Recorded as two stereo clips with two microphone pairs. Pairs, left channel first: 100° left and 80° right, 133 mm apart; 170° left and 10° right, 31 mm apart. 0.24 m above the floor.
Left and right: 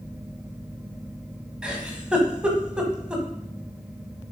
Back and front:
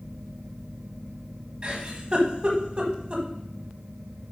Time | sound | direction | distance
1.6 | a giggle | straight ahead | 1.3 m